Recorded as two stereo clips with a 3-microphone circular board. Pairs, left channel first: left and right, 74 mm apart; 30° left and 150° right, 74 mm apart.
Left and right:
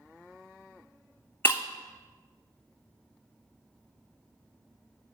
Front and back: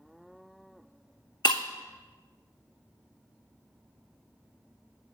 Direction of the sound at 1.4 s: 30° left.